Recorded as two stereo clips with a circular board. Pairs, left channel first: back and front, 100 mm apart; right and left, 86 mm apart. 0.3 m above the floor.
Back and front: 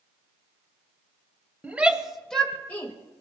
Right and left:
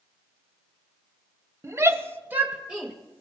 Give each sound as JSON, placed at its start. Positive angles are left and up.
{"t": 1.6, "sound": "a shout", "azimuth_deg": 65, "distance_m": 1.3}